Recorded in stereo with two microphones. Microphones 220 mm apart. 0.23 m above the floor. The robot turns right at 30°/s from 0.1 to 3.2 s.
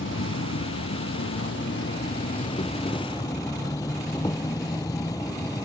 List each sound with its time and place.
0.0 s an insect: 70° left; by 5.7 s 165° left